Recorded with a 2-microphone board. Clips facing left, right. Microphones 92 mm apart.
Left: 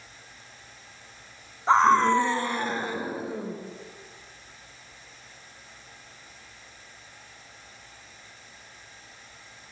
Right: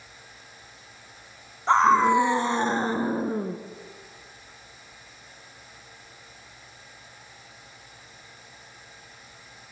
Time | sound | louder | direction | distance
1.7 | a scream | right 1 dB | 5° left (ahead or behind) | 1.5 m